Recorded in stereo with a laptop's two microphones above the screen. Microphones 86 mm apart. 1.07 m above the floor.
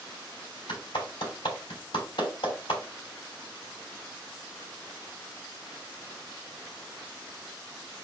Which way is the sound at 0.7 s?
85° left.